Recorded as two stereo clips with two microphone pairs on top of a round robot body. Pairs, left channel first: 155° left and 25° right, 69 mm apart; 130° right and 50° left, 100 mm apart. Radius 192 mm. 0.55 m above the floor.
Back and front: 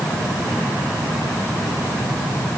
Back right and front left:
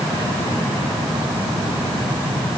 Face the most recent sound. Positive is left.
No sound to turn to.